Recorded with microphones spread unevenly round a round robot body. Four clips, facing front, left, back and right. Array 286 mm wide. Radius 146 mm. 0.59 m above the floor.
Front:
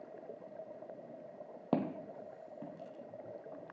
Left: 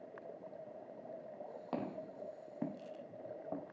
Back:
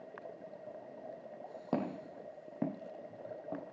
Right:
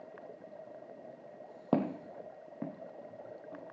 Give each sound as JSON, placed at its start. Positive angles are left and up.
{"t": 1.7, "sound": "footsteps", "azimuth_deg": -75, "distance_m": 1.2}